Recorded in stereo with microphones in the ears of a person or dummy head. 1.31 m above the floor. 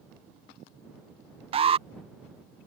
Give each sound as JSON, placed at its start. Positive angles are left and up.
{"t": 1.5, "sound": "an alarm", "side_deg": -25}